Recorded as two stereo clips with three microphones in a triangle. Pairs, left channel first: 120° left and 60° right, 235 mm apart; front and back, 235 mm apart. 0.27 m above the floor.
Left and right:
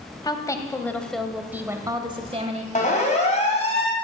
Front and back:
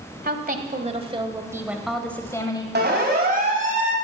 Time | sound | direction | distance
0.2 | a woman speaking | 175° right | 1.4 m
2.8 | a siren | 165° left | 3 m